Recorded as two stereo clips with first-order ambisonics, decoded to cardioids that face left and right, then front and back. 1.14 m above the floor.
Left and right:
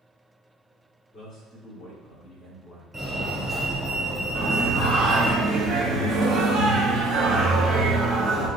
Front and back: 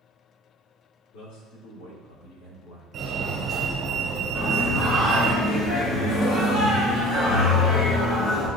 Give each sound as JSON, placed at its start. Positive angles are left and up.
{"t": 1.1, "sound": "a man speaking", "azimuth_deg": 15, "distance_m": 3.0}
{"t": 2.9, "sound": "a fire alarm", "azimuth_deg": -160, "distance_m": 1.1}
{"t": 4.3, "sound": "singing", "azimuth_deg": -30, "distance_m": 2.0}